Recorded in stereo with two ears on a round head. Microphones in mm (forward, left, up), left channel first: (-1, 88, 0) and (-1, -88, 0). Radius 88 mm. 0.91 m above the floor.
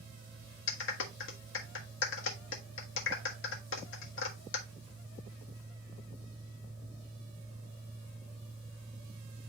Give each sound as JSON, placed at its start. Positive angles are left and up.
{"t": 0.7, "sound": "a clap", "side_deg": 70, "distance_m": 1.4}